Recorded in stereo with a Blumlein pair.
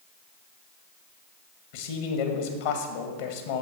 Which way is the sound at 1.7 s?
50° left.